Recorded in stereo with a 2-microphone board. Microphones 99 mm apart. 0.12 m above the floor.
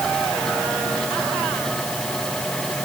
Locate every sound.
Only background noise.